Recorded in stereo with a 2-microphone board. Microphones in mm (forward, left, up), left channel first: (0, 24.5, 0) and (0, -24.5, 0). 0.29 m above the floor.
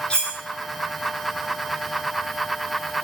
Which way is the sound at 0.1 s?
20° left (ahead or behind).